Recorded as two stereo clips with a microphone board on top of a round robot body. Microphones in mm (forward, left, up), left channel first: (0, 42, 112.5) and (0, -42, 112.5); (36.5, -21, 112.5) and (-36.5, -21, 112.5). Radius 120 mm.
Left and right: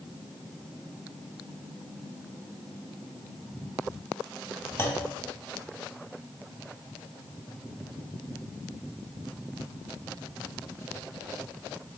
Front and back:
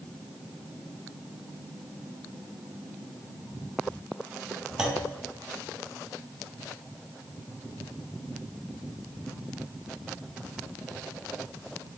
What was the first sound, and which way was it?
A clunk, 110° left.